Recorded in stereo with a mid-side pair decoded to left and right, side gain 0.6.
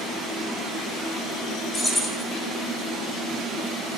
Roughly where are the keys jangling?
Ahead.